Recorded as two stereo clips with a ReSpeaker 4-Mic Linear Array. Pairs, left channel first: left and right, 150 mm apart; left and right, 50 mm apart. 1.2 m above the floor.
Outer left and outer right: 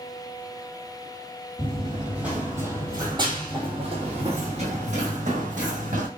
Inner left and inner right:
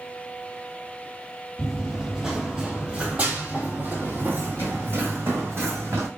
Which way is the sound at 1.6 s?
5° left (ahead or behind).